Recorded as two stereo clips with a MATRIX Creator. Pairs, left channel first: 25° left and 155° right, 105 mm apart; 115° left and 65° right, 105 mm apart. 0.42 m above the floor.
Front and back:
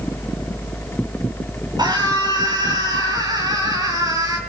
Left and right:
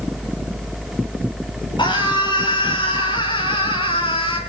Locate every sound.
1.8 s a scream: 155° left, 8 m; by 4.4 s 145° left, 7 m